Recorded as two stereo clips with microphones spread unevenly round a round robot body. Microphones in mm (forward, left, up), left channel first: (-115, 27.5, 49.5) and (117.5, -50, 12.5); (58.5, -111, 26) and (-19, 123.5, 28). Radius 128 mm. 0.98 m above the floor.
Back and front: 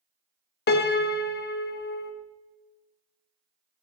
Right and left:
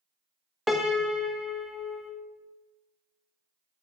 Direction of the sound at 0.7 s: 165° right.